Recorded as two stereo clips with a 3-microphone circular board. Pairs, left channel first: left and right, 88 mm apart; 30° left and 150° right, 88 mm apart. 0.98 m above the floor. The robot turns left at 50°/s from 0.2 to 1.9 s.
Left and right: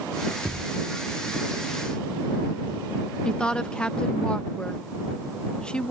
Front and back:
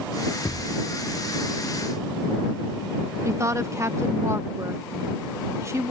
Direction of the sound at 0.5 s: 5° right.